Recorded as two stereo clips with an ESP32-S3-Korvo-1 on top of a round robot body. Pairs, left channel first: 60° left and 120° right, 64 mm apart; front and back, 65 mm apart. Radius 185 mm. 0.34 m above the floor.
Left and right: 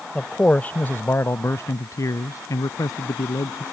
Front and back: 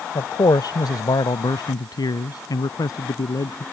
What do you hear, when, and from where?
0.1 s a man speaking: 20° right; by 3.6 s 30° left